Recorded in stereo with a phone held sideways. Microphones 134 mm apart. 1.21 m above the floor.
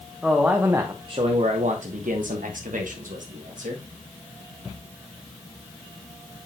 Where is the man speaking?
Centre (ahead or behind), 1.0 m; by 3.8 s 70° right (ahead or behind), 2.0 m.